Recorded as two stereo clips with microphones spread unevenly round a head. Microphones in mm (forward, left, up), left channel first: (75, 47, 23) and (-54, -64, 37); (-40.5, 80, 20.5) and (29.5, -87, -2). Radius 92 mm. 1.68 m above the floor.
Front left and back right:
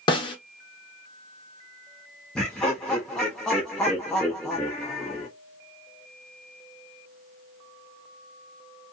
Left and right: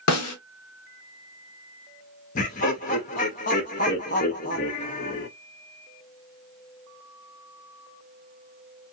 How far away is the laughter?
About 0.5 m.